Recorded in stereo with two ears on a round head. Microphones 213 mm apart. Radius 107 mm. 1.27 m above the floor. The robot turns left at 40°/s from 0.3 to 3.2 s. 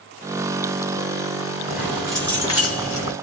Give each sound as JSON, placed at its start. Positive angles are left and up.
{"t": 1.7, "sound": "keys jangling", "azimuth_deg": -165, "distance_m": 1.2}